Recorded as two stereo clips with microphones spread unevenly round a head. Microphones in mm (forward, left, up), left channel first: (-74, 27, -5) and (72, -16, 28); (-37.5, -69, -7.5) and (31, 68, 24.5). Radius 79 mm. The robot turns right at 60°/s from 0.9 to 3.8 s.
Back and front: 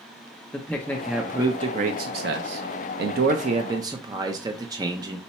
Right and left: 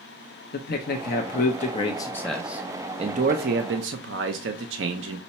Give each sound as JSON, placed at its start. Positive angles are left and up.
{"t": 0.5, "sound": "a man speaking", "azimuth_deg": -120, "distance_m": 0.5}